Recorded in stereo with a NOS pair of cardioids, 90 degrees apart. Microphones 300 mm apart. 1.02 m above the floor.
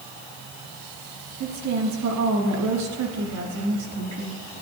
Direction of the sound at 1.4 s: 70° right.